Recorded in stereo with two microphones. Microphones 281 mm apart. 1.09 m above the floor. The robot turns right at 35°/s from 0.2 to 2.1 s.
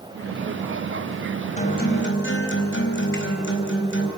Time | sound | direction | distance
1.6 | a guitar | 25° left (ahead or behind) | 4 m